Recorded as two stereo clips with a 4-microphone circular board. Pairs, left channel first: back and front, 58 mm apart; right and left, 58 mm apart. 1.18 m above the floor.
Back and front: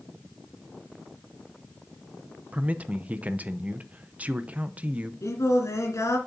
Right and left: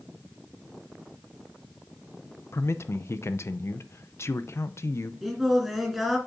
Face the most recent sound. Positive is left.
turn(degrees=180)